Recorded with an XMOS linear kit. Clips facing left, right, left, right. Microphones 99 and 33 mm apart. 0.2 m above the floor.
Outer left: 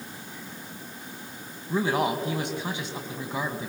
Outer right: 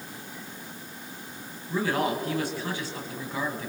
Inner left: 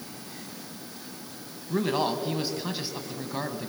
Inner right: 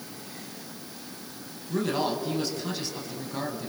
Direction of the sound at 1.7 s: 20° left (ahead or behind).